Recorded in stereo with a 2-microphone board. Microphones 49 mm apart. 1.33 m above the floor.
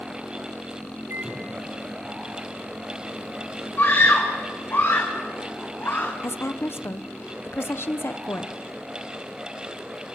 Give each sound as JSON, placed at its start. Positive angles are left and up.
{"t": 1.1, "sound": "a microwave", "side_deg": -60, "distance_m": 3.0}
{"t": 3.8, "sound": "a scream", "side_deg": 45, "distance_m": 1.8}
{"t": 6.2, "sound": "a woman speaking", "side_deg": 55, "distance_m": 0.9}